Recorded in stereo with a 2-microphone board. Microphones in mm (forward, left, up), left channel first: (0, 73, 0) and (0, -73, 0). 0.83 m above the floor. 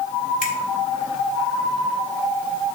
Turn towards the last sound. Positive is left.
turn(degrees=85)